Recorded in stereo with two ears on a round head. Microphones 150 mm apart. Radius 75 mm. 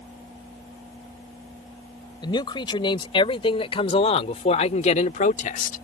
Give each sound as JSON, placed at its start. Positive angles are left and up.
{"t": 2.2, "sound": "a man speaking", "side_deg": 30}